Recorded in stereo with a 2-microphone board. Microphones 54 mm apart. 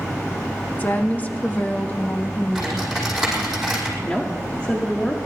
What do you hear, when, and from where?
0.8 s a woman speaking: 30° left (ahead or behind), 1.3 m
2.5 s typing on a keyboard: centre (ahead or behind), 6 m
4.0 s a woman speaking: 20° left (ahead or behind), 1.4 m